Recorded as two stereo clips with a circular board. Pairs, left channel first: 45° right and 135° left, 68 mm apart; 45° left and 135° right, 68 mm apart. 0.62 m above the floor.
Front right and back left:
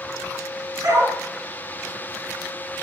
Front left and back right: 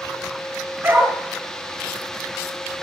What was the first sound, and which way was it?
A dog barking, 165° left.